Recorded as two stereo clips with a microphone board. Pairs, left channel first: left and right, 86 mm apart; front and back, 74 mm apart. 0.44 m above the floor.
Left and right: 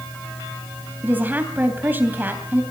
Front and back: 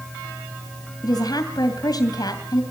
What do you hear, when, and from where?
1.0 s a woman speaking: 25° right, 2.5 m